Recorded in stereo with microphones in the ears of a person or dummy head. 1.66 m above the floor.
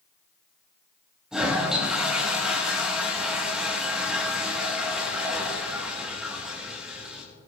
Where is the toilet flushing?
5° right (ahead or behind), 5 m.